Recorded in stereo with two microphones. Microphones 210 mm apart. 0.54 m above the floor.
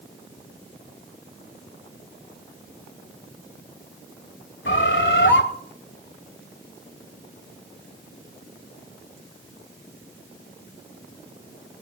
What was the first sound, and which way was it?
A bird, 65° left (ahead or behind).